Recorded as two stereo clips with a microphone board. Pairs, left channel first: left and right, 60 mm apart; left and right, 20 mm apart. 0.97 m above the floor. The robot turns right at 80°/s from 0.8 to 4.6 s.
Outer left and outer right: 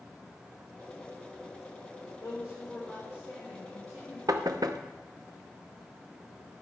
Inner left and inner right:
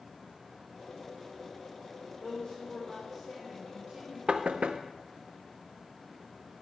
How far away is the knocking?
About 0.7 m.